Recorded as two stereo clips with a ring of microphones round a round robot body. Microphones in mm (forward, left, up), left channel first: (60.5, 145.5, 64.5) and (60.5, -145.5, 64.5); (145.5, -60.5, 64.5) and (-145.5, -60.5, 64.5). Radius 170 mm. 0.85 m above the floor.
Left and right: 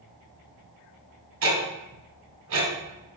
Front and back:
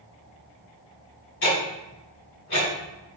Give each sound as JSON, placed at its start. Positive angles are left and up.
{"t": 1.4, "sound": "ticking", "azimuth_deg": -50, "distance_m": 1.7}